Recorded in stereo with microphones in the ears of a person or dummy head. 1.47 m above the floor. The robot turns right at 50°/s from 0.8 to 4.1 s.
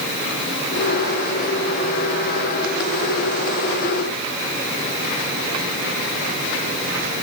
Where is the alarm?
No alarm in this recording.